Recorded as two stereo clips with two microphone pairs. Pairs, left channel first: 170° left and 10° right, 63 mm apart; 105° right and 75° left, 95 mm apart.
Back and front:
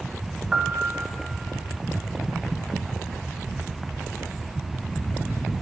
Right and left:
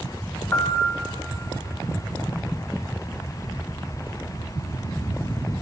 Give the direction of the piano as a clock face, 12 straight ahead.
2 o'clock.